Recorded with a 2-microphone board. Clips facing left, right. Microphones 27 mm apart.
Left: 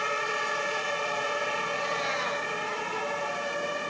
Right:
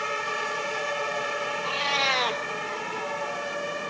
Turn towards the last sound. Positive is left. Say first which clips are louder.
# right 4 dB
turn(degrees=-75)  # may be behind; listen again after turning